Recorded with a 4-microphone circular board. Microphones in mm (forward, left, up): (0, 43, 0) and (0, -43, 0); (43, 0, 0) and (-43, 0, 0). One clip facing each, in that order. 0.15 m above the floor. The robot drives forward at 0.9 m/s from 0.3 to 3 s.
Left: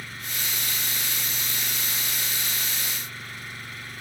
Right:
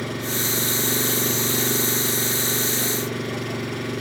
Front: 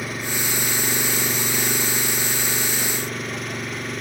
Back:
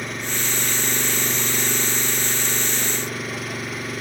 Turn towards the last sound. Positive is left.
turn(degrees=-90)